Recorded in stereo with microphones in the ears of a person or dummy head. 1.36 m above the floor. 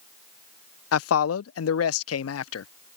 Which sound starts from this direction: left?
A man speaking, at 0.9 s.